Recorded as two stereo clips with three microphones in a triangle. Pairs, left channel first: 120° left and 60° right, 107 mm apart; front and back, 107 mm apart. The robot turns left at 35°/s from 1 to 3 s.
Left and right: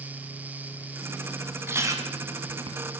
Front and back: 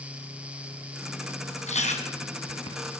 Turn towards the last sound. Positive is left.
turn(degrees=-35)